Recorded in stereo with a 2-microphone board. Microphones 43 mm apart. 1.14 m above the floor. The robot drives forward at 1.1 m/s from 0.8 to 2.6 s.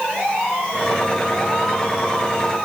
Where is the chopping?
No chopping in this recording.